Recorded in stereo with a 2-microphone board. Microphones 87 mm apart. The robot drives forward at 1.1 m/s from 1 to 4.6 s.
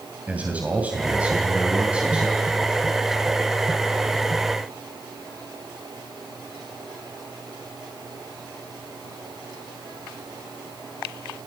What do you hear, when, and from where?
0.3 s a man speaking: 15° right (ahead or behind), 2.5 m; by 2.7 s 10° right (ahead or behind), 4.5 m